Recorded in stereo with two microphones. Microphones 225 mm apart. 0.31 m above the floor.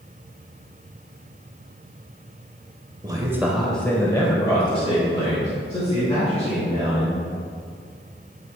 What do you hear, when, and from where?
3.0 s a man speaking: 20° right (ahead or behind), 0.9 m; by 7.2 s 30° left (ahead or behind), 3.5 m